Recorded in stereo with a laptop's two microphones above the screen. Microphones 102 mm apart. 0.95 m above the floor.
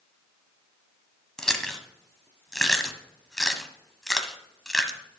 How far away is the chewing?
About 1.1 m.